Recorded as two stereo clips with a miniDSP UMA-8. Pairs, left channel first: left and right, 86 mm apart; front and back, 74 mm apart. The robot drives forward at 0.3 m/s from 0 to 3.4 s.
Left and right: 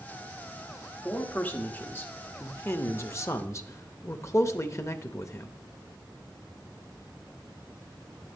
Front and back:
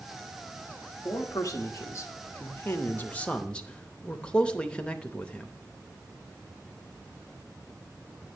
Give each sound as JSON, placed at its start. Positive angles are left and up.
{"t": 1.1, "sound": "a man speaking", "azimuth_deg": 25, "distance_m": 1.1}